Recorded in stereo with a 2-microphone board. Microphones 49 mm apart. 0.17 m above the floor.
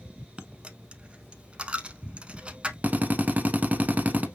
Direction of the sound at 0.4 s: 25° right (ahead or behind).